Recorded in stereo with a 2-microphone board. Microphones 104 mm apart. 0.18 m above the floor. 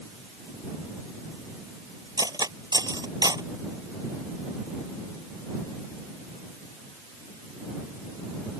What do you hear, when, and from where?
2.2 s cutlery clinking: 35° right (ahead or behind)